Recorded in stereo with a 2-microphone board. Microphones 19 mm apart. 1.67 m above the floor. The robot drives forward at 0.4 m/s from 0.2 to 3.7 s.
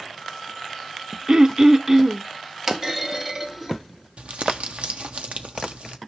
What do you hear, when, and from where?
1.3 s throat clearing: 35° right (ahead or behind), 0.5 m; by 2.2 s 25° right (ahead or behind), 0.8 m
2.7 s a clunk: 25° right (ahead or behind), 1.2 m; by 4.1 s 20° right (ahead or behind), 1.3 m
4.2 s crumpling: 80° right, 0.9 m